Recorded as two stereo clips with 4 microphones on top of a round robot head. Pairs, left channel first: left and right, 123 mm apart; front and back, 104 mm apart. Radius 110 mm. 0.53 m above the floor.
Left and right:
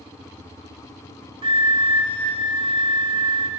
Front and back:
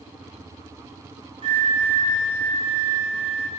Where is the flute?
140° right, 1.6 m.